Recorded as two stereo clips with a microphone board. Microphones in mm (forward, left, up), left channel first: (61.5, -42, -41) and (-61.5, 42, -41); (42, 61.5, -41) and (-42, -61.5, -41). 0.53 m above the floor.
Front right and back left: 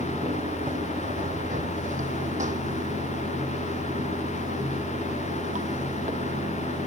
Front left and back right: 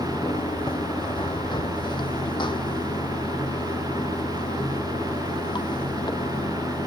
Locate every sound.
0.0 s running water: 115° left